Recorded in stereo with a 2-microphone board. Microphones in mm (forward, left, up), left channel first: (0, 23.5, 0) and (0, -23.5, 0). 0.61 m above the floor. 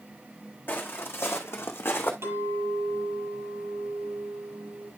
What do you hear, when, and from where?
0.7 s footsteps: 50° left (ahead or behind), 1.9 m; by 2.1 s 60° left (ahead or behind), 1.8 m
2.2 s a clink: 70° right (ahead or behind), 8 m